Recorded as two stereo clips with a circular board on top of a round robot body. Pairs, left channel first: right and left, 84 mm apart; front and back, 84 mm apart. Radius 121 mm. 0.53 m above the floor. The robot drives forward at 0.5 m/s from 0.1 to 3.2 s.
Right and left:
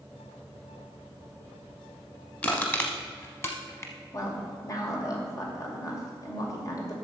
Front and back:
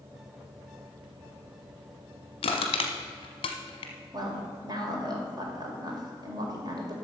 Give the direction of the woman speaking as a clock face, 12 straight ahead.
5 o'clock.